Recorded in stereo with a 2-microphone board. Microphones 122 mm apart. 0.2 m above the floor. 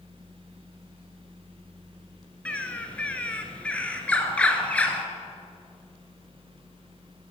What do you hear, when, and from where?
2.5 s a bird: 10° left (ahead or behind), 1.4 m